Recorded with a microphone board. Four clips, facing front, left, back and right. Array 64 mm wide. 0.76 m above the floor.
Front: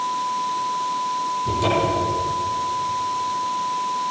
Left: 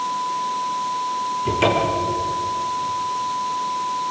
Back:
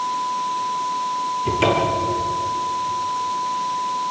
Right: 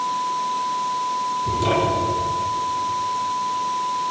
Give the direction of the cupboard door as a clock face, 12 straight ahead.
8 o'clock.